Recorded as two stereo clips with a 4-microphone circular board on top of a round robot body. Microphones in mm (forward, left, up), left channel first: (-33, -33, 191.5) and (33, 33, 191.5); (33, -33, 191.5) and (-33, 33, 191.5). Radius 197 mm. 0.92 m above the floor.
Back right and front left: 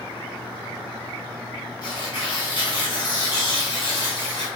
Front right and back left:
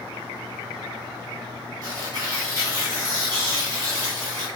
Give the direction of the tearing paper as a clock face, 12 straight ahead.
6 o'clock.